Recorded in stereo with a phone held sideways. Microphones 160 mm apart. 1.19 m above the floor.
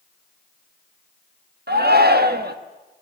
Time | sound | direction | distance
1.7 | a shout | 90° right | 1.5 m